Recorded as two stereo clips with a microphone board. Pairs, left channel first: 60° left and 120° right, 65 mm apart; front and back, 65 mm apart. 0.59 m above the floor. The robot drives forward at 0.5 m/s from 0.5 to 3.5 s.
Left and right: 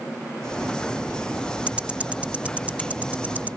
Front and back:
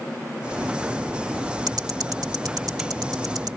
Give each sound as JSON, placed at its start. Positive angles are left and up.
{"t": 1.7, "sound": "ticking", "azimuth_deg": 170}